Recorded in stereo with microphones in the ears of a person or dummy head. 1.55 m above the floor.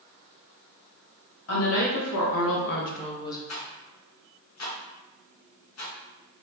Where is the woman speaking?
70° left (ahead or behind), 1.2 m; by 3.4 s 20° left (ahead or behind), 0.8 m.